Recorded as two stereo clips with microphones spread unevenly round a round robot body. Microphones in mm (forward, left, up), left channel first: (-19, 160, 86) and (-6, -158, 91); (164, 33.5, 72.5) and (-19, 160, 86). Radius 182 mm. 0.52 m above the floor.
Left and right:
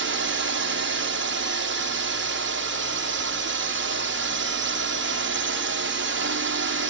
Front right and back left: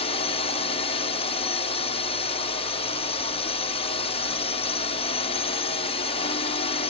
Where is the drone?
70° right.